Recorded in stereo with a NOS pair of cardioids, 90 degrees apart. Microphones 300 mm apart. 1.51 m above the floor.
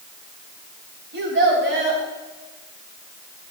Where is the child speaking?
40° right, 4.5 m.